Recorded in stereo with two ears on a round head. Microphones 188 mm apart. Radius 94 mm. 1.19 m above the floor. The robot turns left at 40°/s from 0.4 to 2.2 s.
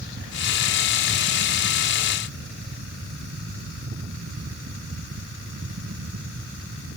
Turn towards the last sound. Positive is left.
No sound to turn to.